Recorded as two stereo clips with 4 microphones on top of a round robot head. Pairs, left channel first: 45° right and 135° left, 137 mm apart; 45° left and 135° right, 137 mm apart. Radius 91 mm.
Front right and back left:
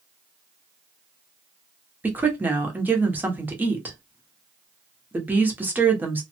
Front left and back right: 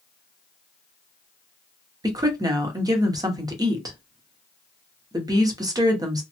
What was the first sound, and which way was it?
A woman speaking, 160° right.